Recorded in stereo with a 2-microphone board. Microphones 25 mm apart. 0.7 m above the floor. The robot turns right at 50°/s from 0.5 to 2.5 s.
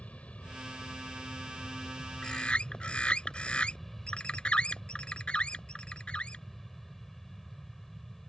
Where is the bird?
35° left (ahead or behind); by 6.5 s 50° left (ahead or behind).